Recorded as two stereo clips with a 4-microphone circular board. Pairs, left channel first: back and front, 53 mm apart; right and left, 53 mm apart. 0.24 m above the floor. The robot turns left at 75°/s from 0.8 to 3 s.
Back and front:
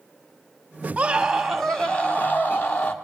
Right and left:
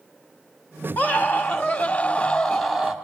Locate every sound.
1.0 s a scream: 50° right, 1.5 m; by 2.9 s 160° left, 1.5 m